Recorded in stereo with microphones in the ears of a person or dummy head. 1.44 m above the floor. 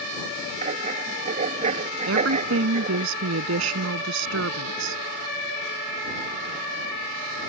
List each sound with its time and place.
0.6 s writing: 45° right (ahead or behind)
2.1 s a woman speaking: 80° right